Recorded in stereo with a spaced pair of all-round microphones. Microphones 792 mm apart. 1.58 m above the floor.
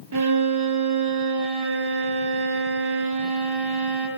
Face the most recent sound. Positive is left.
turn(degrees=-35)  # may be behind; listen again after turning